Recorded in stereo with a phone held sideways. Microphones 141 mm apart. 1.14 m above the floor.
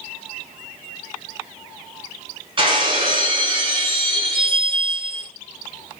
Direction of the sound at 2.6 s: 35° right (ahead or behind).